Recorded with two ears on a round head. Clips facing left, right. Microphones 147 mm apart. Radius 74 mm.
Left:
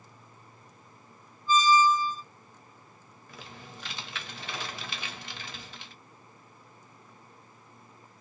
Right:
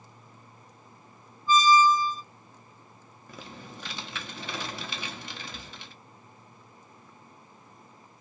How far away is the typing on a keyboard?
About 0.6 m.